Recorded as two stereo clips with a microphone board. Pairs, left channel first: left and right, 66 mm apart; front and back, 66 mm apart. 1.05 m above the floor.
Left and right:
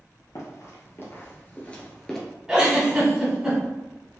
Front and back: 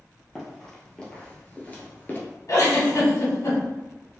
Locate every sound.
0.3 s running footsteps: 85° left, 1.6 m; by 2.2 s 10° left, 1.2 m
2.5 s a giggle: 10° right, 1.8 m